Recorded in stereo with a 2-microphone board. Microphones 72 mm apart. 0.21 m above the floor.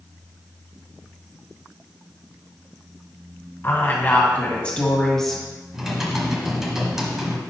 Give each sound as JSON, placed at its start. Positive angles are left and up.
{"t": 3.6, "sound": "a woman speaking", "side_deg": 35, "distance_m": 1.9}
{"t": 5.7, "sound": "typing on a keyboard", "side_deg": -5, "distance_m": 1.4}